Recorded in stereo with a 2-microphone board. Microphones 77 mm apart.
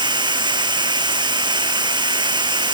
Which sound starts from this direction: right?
Running water, at 0.0 s.